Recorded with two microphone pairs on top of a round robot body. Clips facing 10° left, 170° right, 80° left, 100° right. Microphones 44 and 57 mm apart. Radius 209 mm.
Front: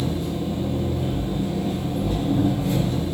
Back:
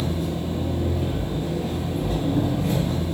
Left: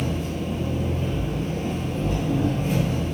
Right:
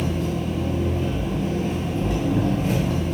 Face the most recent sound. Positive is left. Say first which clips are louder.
# front 1 dB, right 2 dB
turn(degrees=-125)